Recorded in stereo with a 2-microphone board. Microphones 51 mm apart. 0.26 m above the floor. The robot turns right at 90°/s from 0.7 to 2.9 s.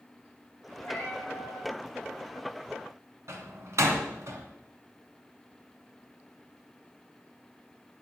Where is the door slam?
65° right (ahead or behind), 2 m.